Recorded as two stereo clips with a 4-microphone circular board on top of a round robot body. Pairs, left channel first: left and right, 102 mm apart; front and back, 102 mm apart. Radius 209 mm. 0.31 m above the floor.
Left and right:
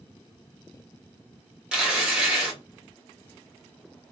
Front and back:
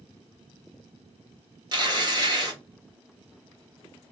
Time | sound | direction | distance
1.7 | tearing paper | 170° right | 1.7 m